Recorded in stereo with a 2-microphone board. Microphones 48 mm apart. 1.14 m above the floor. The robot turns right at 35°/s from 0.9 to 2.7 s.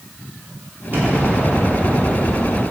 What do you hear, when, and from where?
0.9 s an explosion: 45° right, 3 m; by 2.6 s 15° left, 3 m